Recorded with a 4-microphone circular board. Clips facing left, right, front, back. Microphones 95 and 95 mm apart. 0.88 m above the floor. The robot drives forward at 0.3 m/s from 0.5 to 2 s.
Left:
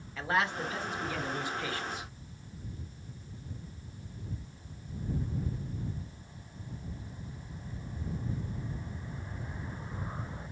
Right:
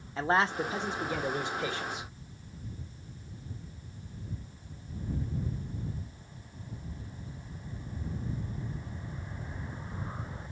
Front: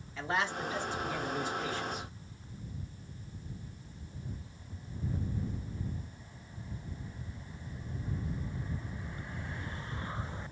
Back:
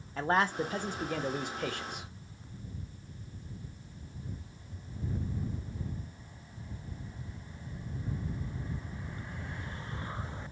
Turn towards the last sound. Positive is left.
turn(degrees=-160)